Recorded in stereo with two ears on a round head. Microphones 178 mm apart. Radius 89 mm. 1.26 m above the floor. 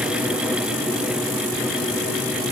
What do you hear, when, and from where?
Only background noise.